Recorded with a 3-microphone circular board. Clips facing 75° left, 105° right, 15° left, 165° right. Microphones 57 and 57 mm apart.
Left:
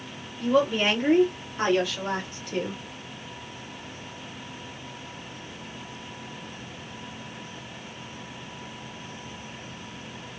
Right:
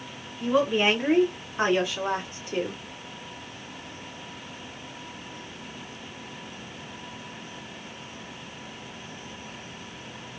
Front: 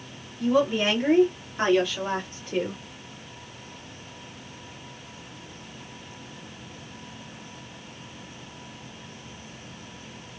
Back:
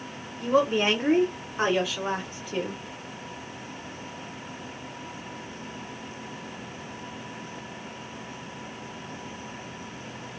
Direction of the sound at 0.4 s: 170° right.